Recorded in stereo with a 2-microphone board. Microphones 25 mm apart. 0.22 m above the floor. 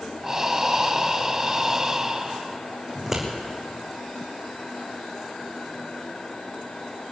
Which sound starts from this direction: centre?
Scissors, at 3.0 s.